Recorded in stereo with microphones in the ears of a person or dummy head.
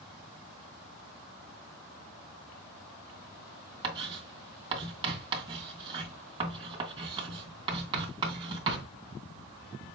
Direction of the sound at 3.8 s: 30° right (ahead or behind).